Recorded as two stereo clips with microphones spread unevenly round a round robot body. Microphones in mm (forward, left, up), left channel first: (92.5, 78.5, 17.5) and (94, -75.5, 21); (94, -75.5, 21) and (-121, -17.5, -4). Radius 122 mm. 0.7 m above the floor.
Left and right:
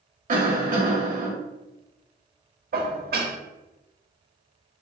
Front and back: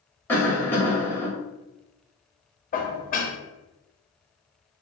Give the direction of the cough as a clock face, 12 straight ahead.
3 o'clock.